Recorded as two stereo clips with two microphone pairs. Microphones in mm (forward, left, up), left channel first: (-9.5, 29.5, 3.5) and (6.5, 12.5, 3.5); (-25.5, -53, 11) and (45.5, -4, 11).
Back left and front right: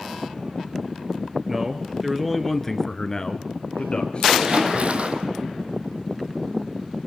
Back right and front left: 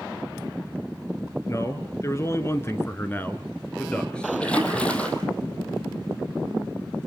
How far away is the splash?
About 3 m.